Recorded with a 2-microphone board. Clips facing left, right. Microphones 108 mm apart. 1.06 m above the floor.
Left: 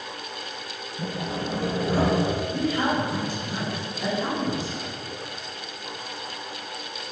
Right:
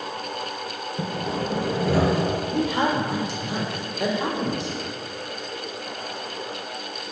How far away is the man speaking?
About 3.5 m.